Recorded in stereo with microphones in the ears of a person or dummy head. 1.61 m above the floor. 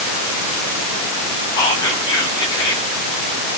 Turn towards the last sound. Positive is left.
turn(degrees=15)  # may be behind; listen again after turning